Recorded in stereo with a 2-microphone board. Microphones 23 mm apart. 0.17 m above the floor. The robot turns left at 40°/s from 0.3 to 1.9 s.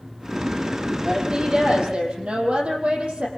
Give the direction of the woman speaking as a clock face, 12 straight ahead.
1 o'clock.